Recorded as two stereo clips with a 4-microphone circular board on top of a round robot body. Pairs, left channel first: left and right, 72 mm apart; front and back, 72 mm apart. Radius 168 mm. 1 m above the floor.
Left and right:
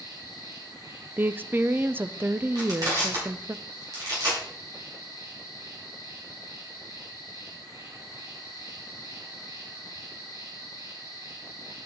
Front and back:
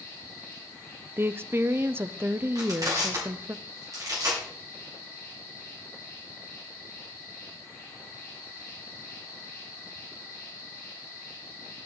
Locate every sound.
0.0 s an insect: 60° right, 5.5 m
1.2 s a woman speaking: 140° right, 0.5 m
2.5 s crushing: 130° right, 3 m